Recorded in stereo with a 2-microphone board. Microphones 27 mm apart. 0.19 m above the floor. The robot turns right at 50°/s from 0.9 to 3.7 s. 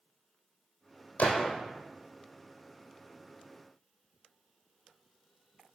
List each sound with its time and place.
1.2 s a gunshot: 75° left (ahead or behind), 1.5 m; by 1.6 s 55° left (ahead or behind), 1.5 m